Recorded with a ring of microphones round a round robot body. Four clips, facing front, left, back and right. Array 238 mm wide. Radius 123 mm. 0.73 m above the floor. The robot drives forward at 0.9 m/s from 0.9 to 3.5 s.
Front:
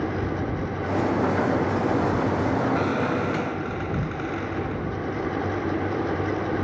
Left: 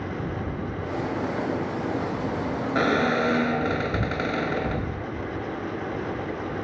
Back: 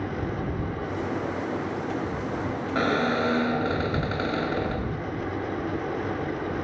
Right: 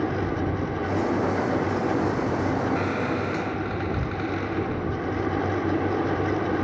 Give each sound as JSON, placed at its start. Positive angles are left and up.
{"t": 2.8, "sound": "a squeak", "azimuth_deg": 120}